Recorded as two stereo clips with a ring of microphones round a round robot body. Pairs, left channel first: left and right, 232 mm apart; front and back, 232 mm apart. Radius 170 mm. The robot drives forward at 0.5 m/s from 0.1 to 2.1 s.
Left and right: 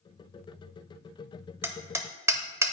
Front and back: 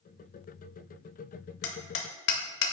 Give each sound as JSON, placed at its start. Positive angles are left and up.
{"t": 1.6, "sound": "hammering", "azimuth_deg": -10, "distance_m": 0.9}